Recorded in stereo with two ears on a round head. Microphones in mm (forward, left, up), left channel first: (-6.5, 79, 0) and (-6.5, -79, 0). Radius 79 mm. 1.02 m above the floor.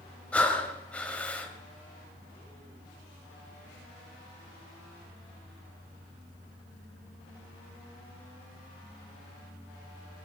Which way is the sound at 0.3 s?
10° left (ahead or behind).